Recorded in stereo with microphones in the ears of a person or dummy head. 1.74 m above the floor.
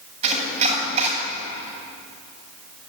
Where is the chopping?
40° right (ahead or behind), 8 m.